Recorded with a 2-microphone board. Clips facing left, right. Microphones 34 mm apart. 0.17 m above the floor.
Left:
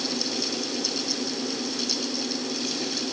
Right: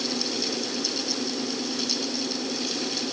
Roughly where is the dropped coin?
I don't hear a dropped coin.